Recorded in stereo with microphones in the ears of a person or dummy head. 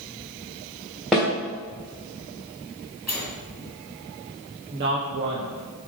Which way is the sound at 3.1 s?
5° right (ahead or behind).